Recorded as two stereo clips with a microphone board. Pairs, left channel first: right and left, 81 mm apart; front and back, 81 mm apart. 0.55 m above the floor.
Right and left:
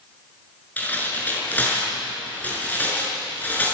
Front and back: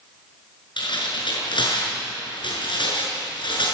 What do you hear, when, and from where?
0.8 s tearing paper: 20° right, 6.5 m